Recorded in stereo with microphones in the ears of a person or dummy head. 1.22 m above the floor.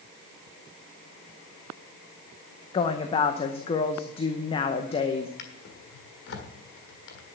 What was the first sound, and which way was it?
A woman speaking, 30° left (ahead or behind).